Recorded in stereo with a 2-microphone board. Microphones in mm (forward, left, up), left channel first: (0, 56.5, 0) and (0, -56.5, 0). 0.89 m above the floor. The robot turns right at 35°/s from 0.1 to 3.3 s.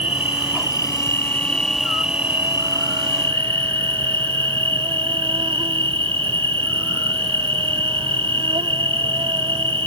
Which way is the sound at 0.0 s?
120° left.